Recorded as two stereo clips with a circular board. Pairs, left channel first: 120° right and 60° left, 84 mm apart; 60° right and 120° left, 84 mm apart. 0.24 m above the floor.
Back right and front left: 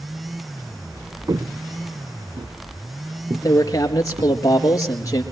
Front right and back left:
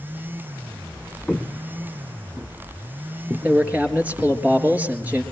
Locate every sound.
1.3 s footsteps: 20° left, 0.7 m; by 4.4 s 50° left, 3.5 m
3.4 s a man speaking: 170° right, 4 m